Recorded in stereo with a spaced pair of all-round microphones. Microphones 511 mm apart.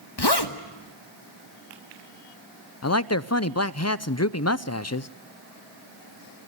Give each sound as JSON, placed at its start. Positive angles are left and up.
{"t": 0.2, "sound": "a zipper", "side_deg": 50, "distance_m": 1.4}
{"t": 2.8, "sound": "a man speaking", "side_deg": 30, "distance_m": 0.5}